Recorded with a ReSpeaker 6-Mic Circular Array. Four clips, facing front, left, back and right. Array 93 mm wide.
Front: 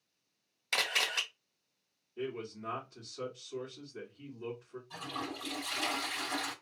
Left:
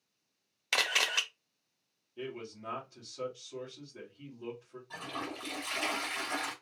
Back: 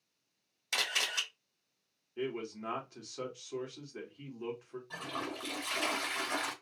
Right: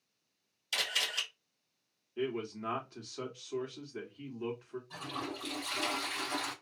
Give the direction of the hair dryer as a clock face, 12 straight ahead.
No hair dryer in this recording.